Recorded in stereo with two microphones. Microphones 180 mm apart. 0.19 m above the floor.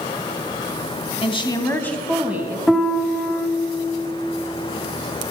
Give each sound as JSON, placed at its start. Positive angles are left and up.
{"t": 1.2, "sound": "a woman speaking", "side_deg": 30, "distance_m": 1.1}
{"t": 2.7, "sound": "a piano", "side_deg": 0, "distance_m": 0.8}